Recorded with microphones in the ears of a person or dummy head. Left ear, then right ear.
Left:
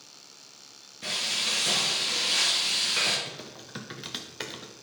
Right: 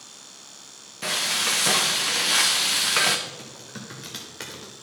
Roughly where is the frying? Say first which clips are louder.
Right 4 dB; right.